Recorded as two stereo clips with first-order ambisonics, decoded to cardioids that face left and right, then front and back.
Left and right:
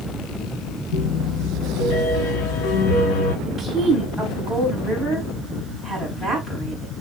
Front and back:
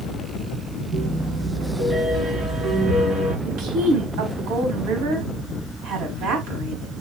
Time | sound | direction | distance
0.9 | a piano | 110° left | 1.9 m
3.5 | a woman speaking | straight behind | 4 m